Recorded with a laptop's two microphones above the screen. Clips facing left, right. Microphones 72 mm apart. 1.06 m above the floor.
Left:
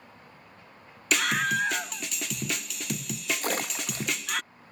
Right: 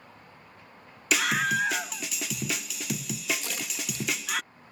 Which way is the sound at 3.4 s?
50° left (ahead or behind).